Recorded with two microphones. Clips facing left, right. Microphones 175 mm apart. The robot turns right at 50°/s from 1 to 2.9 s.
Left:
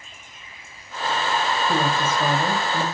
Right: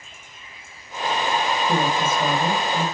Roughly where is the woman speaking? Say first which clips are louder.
Right 1 dB; ahead right.